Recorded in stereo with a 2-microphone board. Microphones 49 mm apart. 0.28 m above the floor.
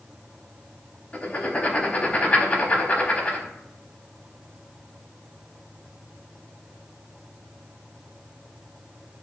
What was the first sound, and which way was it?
Writing, 30° left (ahead or behind).